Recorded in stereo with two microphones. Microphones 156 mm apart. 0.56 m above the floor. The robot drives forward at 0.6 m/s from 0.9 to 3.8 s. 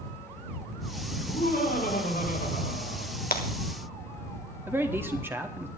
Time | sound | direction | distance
1.2 | laughter | 80° left | 6 m
3.3 | breaking glass | 75° left (ahead or behind) | 1.5 m
4.7 | a man speaking | 15° right (ahead or behind) | 1.2 m